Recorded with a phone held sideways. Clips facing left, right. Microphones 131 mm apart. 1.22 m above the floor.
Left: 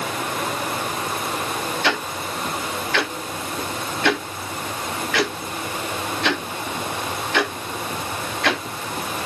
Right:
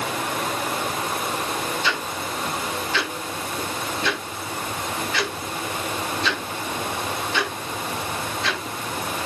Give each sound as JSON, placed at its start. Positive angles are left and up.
{"t": 1.8, "sound": "ticking", "side_deg": 70, "distance_m": 2.5}